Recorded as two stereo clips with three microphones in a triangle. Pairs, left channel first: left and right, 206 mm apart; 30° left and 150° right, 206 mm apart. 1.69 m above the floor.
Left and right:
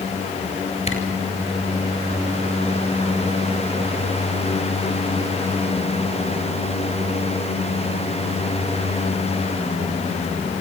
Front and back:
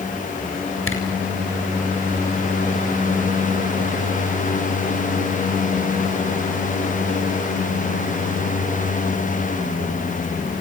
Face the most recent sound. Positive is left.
turn(degrees=30)